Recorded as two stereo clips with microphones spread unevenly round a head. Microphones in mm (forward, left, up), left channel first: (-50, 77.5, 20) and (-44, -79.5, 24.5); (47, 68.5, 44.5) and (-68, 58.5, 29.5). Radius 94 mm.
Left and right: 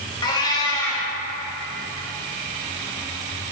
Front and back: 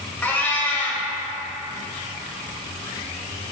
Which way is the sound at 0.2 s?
45° left.